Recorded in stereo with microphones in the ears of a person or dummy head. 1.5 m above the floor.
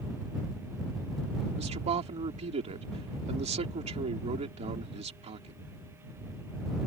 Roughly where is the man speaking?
Right.